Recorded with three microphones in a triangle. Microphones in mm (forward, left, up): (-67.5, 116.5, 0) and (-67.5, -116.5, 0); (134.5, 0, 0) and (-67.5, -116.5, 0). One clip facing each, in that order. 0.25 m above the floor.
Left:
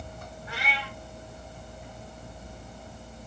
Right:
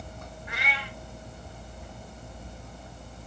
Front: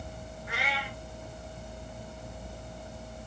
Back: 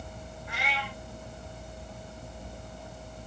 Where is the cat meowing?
35° left, 1.5 m.